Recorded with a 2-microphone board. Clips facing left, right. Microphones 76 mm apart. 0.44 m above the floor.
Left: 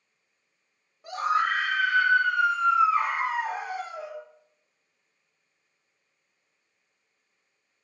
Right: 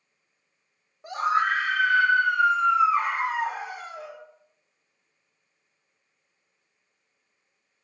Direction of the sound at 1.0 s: 25° right (ahead or behind).